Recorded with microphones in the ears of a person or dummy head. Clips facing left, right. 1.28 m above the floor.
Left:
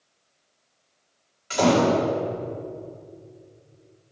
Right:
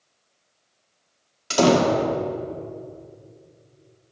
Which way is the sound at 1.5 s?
55° right (ahead or behind).